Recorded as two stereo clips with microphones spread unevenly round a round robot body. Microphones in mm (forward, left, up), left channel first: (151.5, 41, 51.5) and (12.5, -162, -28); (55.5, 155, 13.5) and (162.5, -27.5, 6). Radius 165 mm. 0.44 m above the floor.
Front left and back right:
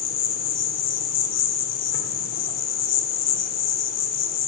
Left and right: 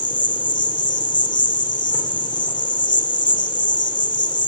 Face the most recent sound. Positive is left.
turn(degrees=55)